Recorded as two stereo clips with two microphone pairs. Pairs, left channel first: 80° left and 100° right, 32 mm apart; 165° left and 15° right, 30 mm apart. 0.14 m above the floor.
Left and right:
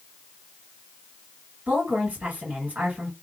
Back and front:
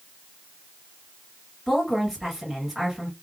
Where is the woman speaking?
110° right, 2 m.